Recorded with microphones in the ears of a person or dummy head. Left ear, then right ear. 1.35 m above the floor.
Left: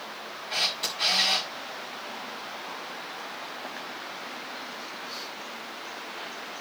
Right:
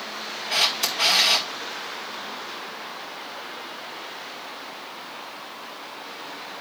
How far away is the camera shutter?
About 1.6 m.